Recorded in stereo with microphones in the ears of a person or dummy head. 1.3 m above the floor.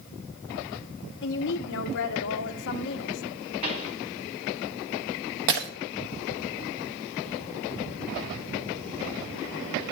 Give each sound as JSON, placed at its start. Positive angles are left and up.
{"t": 1.2, "sound": "a woman speaking", "side_deg": 60, "distance_m": 0.9}
{"t": 3.6, "sound": "a pop", "side_deg": -40, "distance_m": 2.0}
{"t": 5.5, "sound": "breaking glass", "side_deg": -70, "distance_m": 1.1}